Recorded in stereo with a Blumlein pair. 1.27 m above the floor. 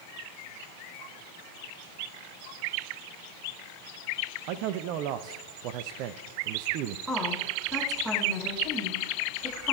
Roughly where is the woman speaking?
Ahead.